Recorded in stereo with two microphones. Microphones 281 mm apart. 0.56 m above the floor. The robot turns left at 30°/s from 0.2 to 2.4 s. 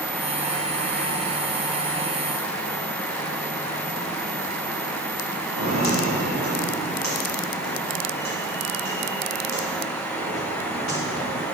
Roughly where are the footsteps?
Left.